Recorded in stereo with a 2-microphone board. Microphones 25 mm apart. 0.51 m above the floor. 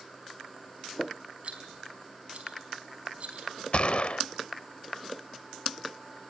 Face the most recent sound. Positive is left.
turn(degrees=50)  # may be behind; listen again after turning